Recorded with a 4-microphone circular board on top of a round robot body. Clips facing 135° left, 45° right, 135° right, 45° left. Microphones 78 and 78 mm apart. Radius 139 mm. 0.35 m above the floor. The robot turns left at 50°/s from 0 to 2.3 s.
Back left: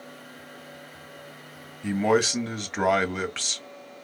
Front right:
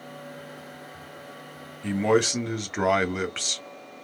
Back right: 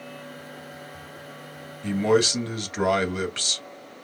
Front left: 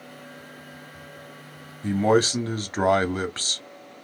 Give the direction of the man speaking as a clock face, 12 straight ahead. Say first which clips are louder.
Even, front left 1 dB; 10 o'clock.